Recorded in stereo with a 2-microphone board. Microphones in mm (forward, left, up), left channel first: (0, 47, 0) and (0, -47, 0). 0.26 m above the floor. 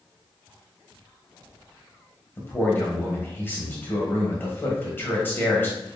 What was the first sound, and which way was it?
A man speaking, 20° left (ahead or behind).